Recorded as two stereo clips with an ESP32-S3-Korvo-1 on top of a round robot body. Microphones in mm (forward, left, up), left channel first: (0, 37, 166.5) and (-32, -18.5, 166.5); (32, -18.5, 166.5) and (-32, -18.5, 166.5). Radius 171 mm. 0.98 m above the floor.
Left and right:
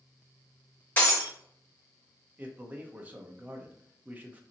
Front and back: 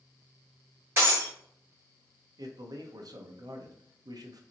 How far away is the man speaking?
About 0.9 m.